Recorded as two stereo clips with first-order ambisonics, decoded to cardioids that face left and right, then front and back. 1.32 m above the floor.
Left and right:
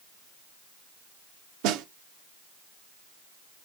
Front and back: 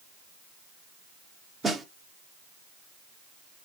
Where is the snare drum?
100° right, 0.9 m.